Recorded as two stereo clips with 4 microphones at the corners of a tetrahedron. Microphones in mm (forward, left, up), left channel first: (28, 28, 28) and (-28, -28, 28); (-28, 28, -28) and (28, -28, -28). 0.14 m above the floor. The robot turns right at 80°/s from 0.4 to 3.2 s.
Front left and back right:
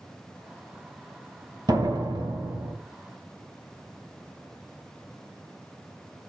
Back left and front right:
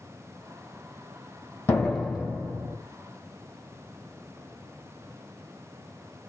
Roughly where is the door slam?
Behind.